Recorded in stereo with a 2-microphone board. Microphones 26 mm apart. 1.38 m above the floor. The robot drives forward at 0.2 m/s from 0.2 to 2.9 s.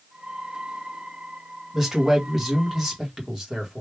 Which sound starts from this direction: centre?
A man speaking, at 1.7 s.